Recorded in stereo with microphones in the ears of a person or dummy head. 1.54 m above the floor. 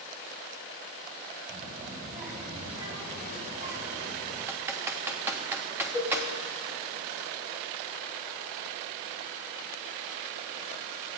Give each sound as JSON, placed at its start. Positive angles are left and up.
{"t": 1.5, "sound": "a child speaking", "side_deg": -30, "distance_m": 5.5}
{"t": 4.5, "sound": "typing on a keyboard", "side_deg": -15, "distance_m": 1.2}
{"t": 5.9, "sound": "a cowbell", "side_deg": 10, "distance_m": 3.0}